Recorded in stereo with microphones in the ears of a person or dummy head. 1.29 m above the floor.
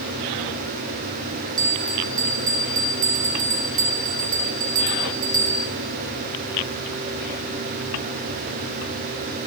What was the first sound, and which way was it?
A bell, 40° right (ahead or behind).